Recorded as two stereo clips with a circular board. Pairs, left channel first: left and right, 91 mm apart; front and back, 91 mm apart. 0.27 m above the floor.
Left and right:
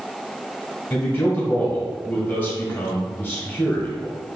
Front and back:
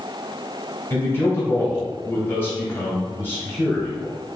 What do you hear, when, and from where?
0.9 s a man speaking: 45° left, 1.2 m